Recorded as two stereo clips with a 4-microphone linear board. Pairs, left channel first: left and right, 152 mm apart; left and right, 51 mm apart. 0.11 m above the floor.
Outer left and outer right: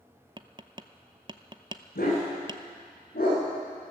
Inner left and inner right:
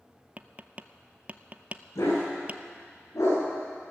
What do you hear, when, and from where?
0.4 s tapping: 30° right (ahead or behind), 0.6 m
1.9 s a dog barking: 75° left (ahead or behind), 8 m